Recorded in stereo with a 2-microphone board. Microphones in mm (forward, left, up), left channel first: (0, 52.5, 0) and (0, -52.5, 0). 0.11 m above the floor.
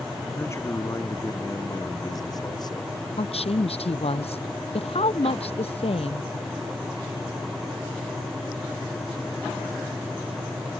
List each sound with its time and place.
0.3 s a man speaking: 25° left (ahead or behind); by 3.1 s 45° left (ahead or behind)
3.2 s a woman speaking: 70° left (ahead or behind)